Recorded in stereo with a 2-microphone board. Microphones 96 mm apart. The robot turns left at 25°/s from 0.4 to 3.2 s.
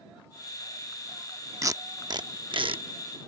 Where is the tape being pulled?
35° right (ahead or behind); by 3.3 s 70° right (ahead or behind).